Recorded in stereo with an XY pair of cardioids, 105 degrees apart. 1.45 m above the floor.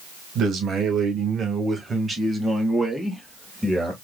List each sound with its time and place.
0.3 s a man speaking: 65° right, 2.0 m; by 3.9 s 5° right, 2.5 m